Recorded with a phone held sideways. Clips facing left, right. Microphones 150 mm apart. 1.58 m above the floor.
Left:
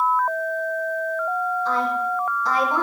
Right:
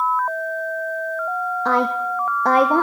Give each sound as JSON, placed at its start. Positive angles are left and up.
{"t": 1.6, "sound": "a woman speaking", "side_deg": -70, "distance_m": 0.9}